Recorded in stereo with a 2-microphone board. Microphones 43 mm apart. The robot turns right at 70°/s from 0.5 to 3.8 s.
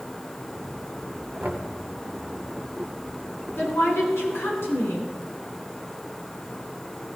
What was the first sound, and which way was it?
Knocking, 50° right (ahead or behind).